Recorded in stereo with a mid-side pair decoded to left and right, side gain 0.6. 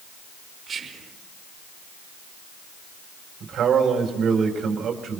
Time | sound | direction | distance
0.7 | whispering | 35° right | 1.8 m
3.4 | a man speaking | 45° right | 4.5 m